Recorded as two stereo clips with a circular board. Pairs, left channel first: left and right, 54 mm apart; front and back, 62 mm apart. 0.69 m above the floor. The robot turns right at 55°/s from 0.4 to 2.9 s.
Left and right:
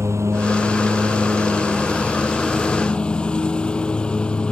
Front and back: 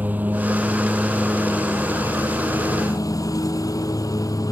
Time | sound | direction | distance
0.0 | a lawn mower | 120° right | ?